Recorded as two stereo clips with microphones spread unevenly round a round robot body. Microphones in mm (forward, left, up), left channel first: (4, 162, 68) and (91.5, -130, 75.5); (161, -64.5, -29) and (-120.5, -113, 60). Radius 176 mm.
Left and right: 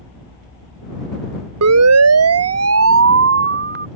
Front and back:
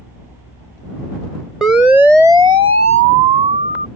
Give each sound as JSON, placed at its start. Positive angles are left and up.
{"t": 1.6, "sound": "a siren", "azimuth_deg": -70}